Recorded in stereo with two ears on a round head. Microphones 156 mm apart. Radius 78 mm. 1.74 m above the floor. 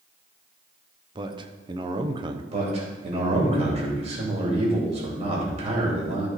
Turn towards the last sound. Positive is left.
turn(degrees=-35)  # may be behind; listen again after turning